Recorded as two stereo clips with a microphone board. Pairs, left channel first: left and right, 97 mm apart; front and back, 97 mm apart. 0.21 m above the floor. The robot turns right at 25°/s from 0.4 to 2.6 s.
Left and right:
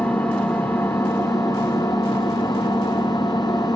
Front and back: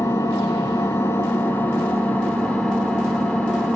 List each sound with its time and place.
0.0 s an engine running: 30° left, 0.9 m; by 3.8 s 85° left, 0.9 m